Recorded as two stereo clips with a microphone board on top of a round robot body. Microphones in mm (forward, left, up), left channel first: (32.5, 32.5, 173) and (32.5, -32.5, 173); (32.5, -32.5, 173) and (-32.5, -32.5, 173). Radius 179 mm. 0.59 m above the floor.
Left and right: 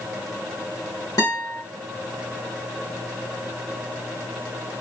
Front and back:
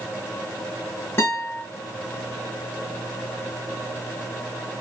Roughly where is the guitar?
Ahead left.